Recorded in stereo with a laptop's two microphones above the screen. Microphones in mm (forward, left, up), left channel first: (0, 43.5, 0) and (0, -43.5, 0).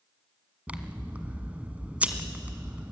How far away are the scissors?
About 1.5 m.